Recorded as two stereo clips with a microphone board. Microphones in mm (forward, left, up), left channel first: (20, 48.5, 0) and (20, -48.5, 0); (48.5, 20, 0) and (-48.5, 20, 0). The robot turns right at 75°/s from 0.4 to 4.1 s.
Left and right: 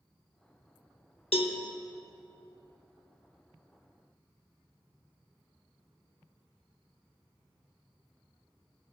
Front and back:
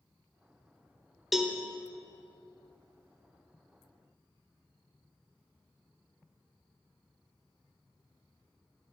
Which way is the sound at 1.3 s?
90° left.